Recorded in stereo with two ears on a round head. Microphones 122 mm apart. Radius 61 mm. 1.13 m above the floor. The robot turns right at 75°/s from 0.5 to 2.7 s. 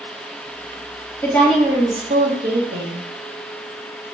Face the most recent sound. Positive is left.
turn(degrees=-90)